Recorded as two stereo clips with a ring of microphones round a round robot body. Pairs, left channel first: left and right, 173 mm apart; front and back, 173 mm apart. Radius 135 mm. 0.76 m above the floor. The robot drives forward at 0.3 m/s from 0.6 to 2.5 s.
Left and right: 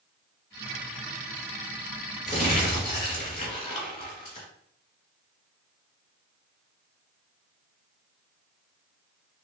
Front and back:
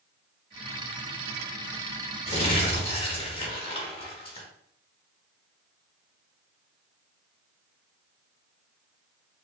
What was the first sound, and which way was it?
Crumpling, 45° left.